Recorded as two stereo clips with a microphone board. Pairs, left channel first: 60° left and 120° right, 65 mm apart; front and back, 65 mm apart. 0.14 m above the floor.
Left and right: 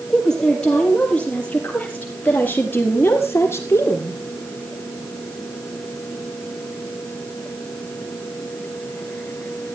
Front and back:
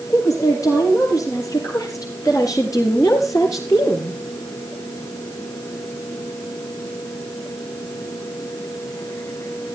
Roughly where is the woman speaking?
Ahead.